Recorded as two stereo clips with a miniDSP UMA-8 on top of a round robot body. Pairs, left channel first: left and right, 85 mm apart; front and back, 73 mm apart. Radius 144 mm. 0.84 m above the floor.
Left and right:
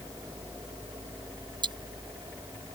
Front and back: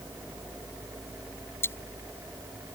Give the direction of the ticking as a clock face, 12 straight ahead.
2 o'clock.